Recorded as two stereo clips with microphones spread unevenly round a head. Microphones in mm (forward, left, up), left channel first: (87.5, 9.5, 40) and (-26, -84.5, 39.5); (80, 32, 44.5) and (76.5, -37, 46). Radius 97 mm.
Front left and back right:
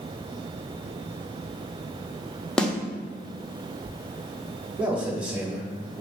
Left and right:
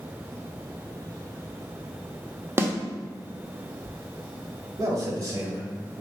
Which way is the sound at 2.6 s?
45° right.